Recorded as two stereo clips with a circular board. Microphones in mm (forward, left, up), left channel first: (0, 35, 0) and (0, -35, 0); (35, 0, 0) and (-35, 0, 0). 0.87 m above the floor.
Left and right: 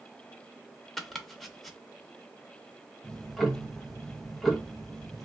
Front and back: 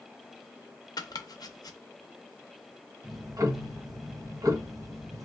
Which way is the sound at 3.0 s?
Straight behind.